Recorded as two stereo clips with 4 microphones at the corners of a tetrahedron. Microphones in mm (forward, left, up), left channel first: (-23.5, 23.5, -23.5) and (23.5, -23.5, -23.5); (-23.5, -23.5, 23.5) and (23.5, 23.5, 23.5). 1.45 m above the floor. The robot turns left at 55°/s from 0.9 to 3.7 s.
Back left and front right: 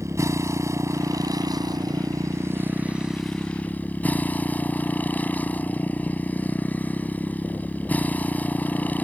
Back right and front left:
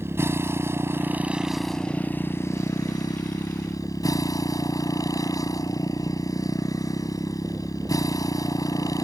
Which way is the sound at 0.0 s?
5° right.